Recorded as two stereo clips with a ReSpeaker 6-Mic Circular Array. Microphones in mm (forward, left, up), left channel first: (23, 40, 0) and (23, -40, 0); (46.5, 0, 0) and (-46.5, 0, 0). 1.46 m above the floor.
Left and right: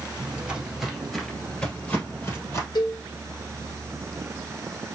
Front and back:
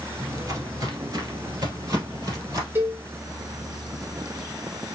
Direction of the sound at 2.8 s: 115° left.